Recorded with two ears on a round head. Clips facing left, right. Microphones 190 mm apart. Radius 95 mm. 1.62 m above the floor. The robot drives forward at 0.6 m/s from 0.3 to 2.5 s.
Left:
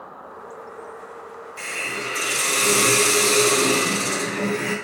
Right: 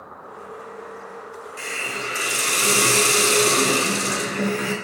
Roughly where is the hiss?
Centre.